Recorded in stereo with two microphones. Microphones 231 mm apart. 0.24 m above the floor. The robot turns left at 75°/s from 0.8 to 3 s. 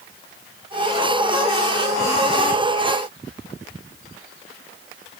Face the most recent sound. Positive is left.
No sound to turn to.